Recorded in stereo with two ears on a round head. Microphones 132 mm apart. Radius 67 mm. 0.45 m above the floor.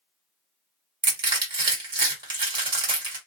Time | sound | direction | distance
1.0 | crushing | 30° right (ahead or behind) | 1.5 m